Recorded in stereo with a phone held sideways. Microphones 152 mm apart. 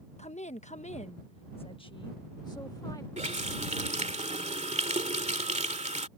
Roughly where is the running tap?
Right.